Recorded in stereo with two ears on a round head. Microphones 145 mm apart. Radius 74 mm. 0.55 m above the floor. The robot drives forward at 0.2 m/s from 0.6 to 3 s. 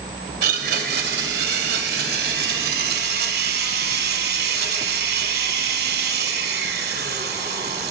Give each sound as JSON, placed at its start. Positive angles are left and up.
{"t": 0.4, "sound": "a blender", "side_deg": -70, "distance_m": 1.9}